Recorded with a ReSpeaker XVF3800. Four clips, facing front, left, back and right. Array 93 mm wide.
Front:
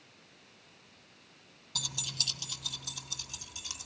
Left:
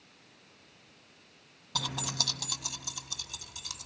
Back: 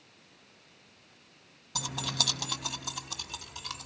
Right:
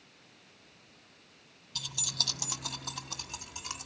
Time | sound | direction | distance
1.8 | keys jangling | 105° left | 0.6 m